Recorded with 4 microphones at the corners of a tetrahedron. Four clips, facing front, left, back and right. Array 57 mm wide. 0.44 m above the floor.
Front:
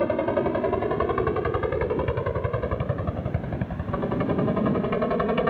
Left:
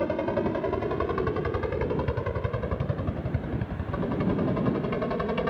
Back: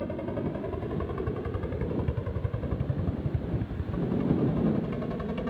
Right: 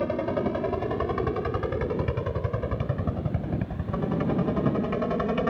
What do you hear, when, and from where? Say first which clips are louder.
0.0 s a helicopter: even, front 9 dB; straight ahead; by 5.5 s 10° right